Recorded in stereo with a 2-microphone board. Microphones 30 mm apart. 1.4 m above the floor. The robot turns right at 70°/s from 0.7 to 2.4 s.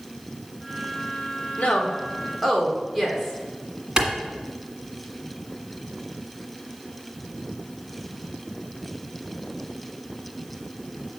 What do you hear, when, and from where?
1.6 s a woman speaking: 50° left (ahead or behind), 1.6 m; by 3.4 s 5° right (ahead or behind), 1.6 m
4.0 s a clap: 30° right (ahead or behind), 1.6 m